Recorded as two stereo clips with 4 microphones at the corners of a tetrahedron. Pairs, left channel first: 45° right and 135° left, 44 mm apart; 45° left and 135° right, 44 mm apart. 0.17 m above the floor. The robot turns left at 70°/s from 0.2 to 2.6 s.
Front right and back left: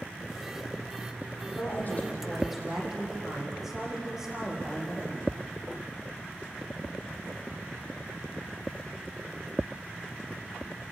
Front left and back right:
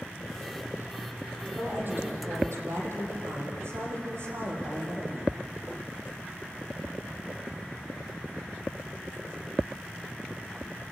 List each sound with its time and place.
1.4 s a woman speaking: 65° right, 6.5 m; by 5.4 s 145° right, 6.5 m